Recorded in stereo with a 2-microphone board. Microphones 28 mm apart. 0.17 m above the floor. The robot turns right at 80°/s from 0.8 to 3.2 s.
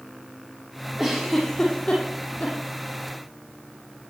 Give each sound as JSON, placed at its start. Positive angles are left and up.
{"t": 1.0, "sound": "a giggle", "side_deg": -10, "distance_m": 8.0}